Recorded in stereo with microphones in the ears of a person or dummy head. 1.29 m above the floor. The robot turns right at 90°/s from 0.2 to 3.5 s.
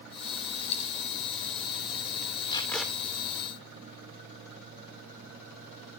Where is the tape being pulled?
150° left, 3 m; by 2.9 s 170° right, 3 m.